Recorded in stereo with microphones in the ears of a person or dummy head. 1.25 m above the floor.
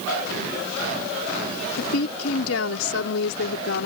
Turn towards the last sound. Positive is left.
turn(degrees=80)